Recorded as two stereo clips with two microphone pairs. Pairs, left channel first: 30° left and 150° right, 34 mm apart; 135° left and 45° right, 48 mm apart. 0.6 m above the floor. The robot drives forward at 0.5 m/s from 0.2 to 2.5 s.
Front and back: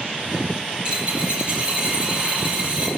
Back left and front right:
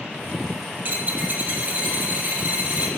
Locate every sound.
0.8 s a dropped coin: 90° right, 8.5 m; by 2.9 s 95° right, 8.5 m